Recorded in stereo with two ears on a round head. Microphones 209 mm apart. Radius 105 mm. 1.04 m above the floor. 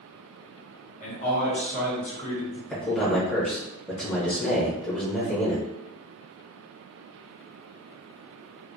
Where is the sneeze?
I don't hear a sneeze.